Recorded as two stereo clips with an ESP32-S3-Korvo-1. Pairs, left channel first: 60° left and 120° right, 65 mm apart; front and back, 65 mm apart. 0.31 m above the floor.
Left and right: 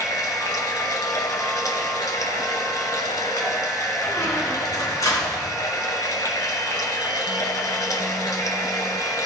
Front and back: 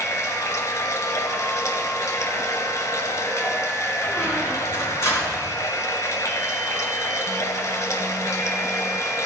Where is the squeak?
35° left, 2.5 m.